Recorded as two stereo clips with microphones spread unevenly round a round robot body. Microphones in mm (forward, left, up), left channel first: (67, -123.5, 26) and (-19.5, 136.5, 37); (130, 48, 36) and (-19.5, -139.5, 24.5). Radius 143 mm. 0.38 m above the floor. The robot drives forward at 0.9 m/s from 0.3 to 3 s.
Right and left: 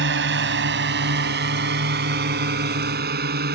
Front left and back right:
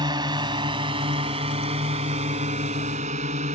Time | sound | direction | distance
0.0 | a drone | 160° left | ?